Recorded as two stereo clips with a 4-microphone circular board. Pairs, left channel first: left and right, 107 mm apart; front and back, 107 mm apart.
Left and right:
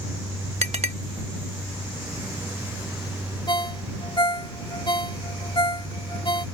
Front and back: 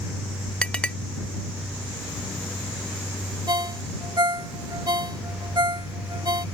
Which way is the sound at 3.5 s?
135° left.